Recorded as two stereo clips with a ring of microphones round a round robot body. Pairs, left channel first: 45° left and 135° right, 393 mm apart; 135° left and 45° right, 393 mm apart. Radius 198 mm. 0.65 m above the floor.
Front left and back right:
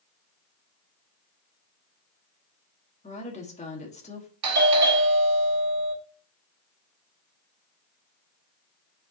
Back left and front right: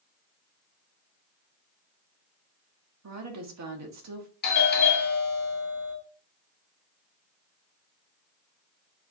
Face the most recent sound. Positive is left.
turn(degrees=-170)